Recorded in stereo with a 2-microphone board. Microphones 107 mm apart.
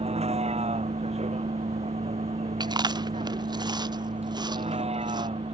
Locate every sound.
0.0 s a vehicle: 75° right (ahead or behind); by 5.5 s 70° right (ahead or behind)
2.6 s chewing: 40° right (ahead or behind)